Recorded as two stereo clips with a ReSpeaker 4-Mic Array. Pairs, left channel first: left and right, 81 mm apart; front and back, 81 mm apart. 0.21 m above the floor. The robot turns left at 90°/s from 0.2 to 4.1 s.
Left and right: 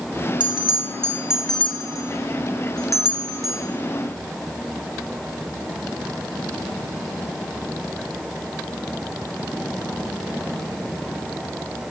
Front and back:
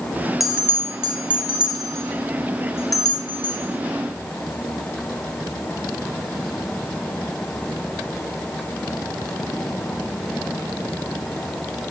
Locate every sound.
0.4 s a bell: 90° right, 2.5 m; by 3.6 s 20° right, 2.5 m